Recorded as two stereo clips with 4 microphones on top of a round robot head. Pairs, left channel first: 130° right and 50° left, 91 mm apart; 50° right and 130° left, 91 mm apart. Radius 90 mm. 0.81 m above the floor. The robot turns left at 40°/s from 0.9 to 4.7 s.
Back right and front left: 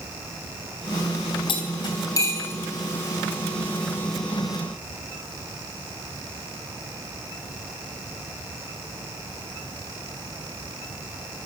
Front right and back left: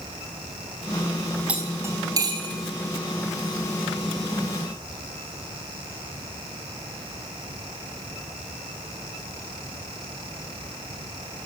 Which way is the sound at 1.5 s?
155° right.